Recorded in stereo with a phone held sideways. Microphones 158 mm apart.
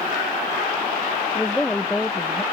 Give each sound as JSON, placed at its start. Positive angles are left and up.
{"t": 1.4, "sound": "a woman speaking", "side_deg": 10}